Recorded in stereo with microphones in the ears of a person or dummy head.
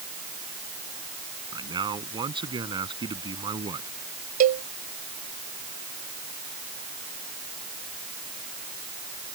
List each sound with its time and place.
1.5 s a man speaking: 25° right (ahead or behind)
4.4 s a cowbell: 45° right (ahead or behind)